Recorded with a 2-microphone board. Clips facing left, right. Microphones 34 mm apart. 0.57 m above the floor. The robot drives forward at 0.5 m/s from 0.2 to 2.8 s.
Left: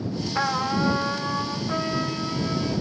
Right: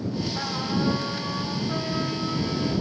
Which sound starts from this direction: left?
A trumpet, at 0.3 s.